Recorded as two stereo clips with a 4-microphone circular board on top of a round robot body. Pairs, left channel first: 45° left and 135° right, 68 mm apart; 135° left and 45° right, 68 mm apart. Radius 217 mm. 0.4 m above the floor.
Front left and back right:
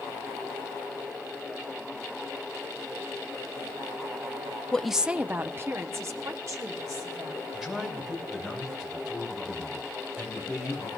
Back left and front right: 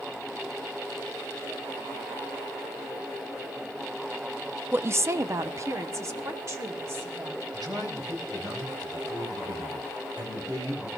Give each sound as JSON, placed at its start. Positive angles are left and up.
{"t": 4.7, "sound": "a woman speaking", "azimuth_deg": -20, "distance_m": 0.8}
{"t": 7.5, "sound": "a man speaking", "azimuth_deg": -50, "distance_m": 6.0}